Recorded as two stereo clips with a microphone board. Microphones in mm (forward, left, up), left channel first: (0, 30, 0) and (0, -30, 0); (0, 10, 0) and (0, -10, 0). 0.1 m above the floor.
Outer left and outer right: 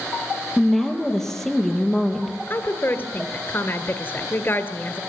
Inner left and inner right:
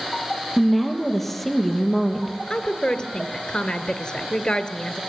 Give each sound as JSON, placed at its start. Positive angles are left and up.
{"t": 0.6, "sound": "a woman speaking", "side_deg": 5, "distance_m": 3.0}
{"t": 2.5, "sound": "a woman speaking", "side_deg": 35, "distance_m": 1.7}